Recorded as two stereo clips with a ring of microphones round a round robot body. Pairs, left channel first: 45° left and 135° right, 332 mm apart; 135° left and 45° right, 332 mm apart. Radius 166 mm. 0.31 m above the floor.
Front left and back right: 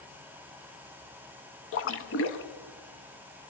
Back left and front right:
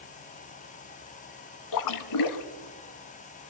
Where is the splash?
100° left, 0.8 m.